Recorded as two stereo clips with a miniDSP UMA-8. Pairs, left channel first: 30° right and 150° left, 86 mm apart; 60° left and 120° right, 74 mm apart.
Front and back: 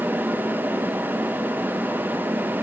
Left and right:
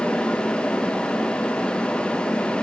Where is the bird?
I don't hear a bird.